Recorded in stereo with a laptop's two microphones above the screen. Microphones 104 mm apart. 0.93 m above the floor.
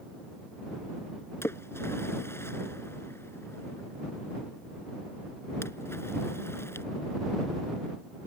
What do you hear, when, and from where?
1.4 s a splash: 25° left (ahead or behind)